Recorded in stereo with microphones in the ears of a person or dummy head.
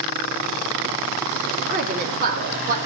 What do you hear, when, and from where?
1.7 s a woman speaking: 50° right (ahead or behind), 3.5 m